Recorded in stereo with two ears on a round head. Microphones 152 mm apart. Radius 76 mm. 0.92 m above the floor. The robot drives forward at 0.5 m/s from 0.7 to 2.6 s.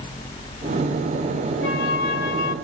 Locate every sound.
1.6 s a flute: 75° left (ahead or behind), 3 m; by 2.5 s 65° left (ahead or behind), 3.5 m